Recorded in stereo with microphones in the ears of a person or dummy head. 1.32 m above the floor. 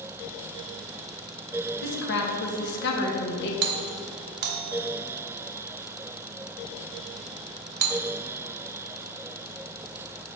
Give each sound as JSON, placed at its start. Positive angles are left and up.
{"t": 1.8, "sound": "a woman speaking", "side_deg": 65, "distance_m": 1.4}
{"t": 3.6, "sound": "a doorbell", "side_deg": -55, "distance_m": 0.9}